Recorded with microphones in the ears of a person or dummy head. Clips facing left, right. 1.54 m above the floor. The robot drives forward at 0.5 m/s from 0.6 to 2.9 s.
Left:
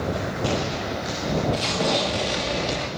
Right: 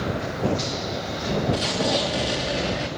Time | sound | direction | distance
1.5 | an explosion | 5° right (ahead or behind) | 1.3 m